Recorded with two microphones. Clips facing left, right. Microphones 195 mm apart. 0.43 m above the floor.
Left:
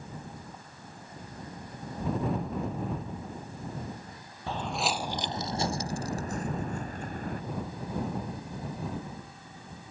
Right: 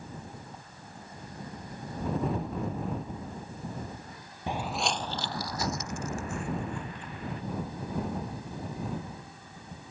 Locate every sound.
4.5 s footsteps: 20° right (ahead or behind); by 7.4 s 50° left (ahead or behind)